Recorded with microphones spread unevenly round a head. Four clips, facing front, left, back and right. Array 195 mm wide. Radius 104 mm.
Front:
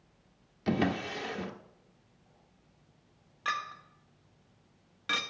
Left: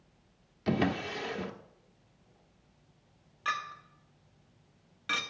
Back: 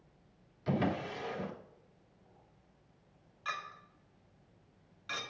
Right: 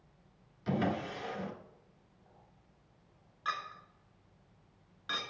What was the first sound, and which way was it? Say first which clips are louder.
A drawer: left 3 dB, front 3 dB; 20° left.